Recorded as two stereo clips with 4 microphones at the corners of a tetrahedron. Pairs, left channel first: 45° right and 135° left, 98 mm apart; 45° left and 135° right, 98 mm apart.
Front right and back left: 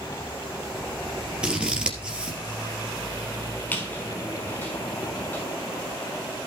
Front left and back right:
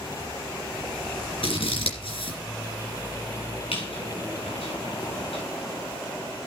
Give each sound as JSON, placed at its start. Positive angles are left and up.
{"t": 1.4, "sound": "scissors", "azimuth_deg": 55, "distance_m": 2.5}
{"t": 3.7, "sound": "a squeak", "azimuth_deg": 30, "distance_m": 5.5}